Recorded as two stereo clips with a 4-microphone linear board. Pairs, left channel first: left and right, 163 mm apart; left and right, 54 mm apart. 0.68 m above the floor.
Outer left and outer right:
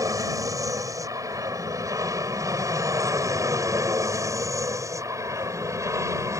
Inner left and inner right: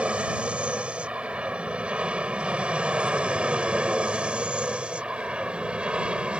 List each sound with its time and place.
0.0 s an aircraft: 20° right (ahead or behind)